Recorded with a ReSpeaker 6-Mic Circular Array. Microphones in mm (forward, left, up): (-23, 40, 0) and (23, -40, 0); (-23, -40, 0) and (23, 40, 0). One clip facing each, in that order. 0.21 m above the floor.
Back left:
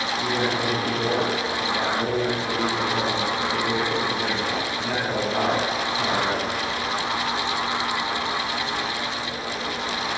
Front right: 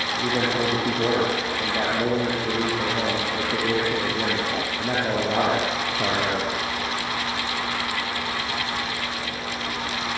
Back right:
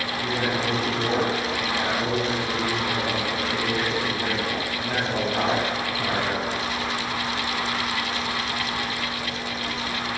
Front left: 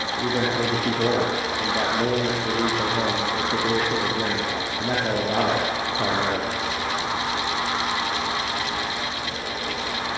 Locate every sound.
0.2 s a man speaking: 5° left, 5.5 m